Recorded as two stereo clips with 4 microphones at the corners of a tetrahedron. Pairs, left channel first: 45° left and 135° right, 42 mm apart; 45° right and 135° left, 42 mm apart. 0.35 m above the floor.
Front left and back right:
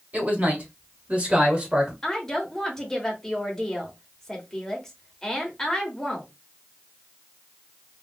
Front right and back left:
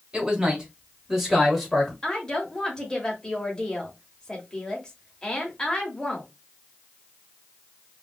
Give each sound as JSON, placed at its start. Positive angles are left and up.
{"t": 0.1, "sound": "a man speaking", "azimuth_deg": -170, "distance_m": 1.8}
{"t": 2.0, "sound": "a woman speaking", "azimuth_deg": -15, "distance_m": 1.1}